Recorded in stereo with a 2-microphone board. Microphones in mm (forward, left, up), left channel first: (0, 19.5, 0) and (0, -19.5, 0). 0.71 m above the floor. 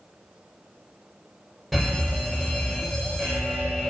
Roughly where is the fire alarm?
Centre.